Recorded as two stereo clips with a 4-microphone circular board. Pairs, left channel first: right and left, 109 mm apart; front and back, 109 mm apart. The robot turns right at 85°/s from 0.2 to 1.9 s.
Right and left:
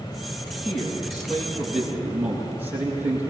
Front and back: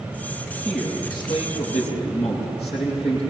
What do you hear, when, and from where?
0.7 s a man speaking: 95° right, 8.5 m; by 3.2 s 10° left, 8.5 m